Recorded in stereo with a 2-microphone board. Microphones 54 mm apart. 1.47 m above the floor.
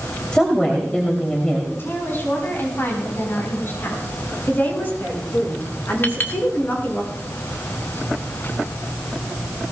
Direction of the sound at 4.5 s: 40° left (ahead or behind).